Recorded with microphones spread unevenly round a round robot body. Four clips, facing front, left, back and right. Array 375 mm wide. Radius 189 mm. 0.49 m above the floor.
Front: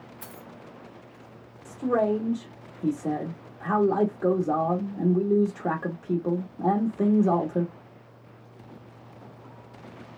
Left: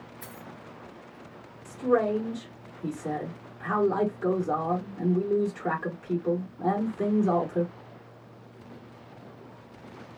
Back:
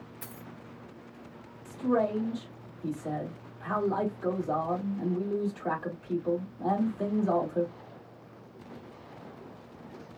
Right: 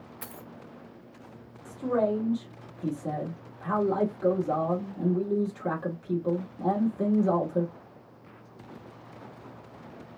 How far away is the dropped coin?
About 0.6 m.